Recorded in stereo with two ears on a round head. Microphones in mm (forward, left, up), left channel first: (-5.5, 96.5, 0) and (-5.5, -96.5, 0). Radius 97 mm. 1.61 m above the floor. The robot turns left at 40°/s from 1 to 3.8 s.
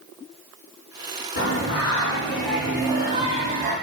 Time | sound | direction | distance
1.4 | singing | 45° left | 3 m